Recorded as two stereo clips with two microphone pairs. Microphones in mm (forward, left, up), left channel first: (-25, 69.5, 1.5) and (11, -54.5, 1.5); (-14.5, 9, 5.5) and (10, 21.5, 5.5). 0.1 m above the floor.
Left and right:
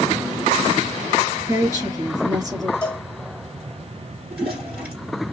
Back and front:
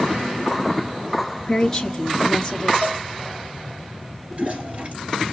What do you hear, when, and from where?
1.5 s a woman speaking: 90° right, 1.2 m
2.8 s a cowbell: 25° left, 1.3 m
4.3 s a toilet flushing: 10° left, 2 m